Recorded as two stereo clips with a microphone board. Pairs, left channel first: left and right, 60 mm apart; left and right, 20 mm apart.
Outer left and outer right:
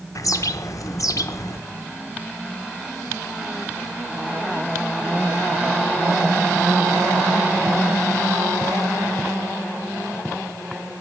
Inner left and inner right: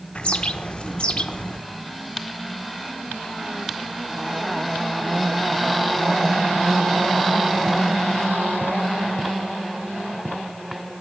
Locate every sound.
0.1 s a bird: 65° left (ahead or behind), 0.6 m